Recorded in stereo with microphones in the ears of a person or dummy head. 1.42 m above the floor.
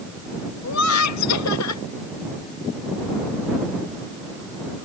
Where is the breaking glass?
No breaking glass in this recording.